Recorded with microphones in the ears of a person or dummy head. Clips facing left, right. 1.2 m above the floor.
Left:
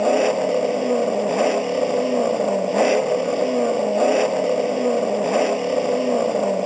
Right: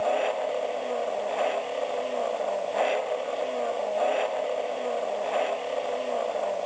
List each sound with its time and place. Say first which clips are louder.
0.0 s an engine running: left 8 dB; 60° left (ahead or behind)